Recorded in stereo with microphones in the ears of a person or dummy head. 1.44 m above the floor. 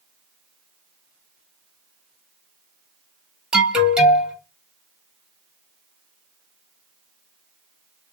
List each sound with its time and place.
3.5 s an alarm: 10° right (ahead or behind), 1.1 m